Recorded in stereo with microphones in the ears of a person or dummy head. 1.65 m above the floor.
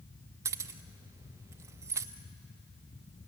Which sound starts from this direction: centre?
Keys jangling, at 0.5 s.